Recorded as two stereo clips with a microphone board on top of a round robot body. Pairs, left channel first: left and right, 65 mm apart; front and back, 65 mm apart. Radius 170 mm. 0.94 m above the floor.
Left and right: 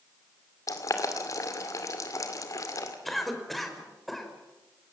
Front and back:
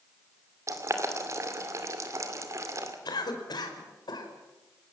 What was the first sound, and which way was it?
Boiling, 130° left.